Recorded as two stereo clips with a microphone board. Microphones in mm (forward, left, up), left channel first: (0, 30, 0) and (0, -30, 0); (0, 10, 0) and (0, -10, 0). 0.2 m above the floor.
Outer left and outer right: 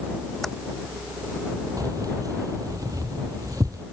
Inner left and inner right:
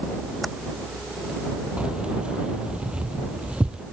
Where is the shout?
No shout in this recording.